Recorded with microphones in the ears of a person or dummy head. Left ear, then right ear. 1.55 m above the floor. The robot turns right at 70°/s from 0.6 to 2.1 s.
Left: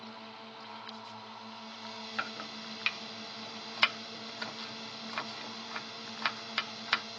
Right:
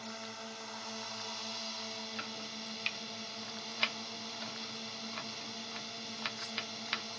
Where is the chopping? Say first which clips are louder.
Left 3 dB; 40° left (ahead or behind).